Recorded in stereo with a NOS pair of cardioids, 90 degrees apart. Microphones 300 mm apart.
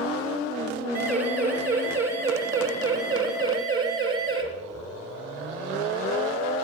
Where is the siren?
55° right, 7 m; by 4.4 s 50° right, 9.5 m.